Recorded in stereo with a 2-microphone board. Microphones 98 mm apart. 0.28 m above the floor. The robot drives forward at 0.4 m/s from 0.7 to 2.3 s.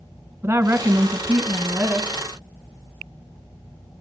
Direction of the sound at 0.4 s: 20° right (ahead or behind).